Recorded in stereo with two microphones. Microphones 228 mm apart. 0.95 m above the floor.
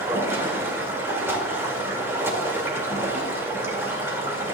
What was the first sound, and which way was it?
Running water, 10° right (ahead or behind).